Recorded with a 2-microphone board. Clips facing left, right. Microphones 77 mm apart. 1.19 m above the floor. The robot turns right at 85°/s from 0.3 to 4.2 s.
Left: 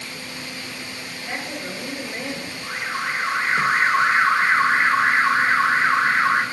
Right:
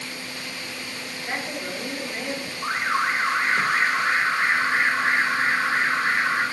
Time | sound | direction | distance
1.1 | a woman speaking | 45° right | 4 m
2.6 | an alarm | 65° right | 0.8 m